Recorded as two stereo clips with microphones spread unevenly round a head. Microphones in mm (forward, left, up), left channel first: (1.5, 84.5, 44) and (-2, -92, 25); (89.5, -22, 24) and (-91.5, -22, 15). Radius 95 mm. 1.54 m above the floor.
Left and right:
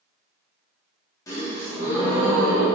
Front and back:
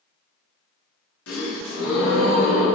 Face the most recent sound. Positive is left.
turn(degrees=15)